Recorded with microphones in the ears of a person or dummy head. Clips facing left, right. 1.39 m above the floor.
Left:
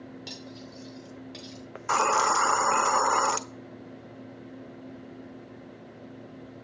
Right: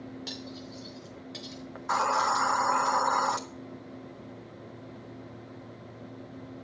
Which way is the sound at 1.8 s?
45° left (ahead or behind).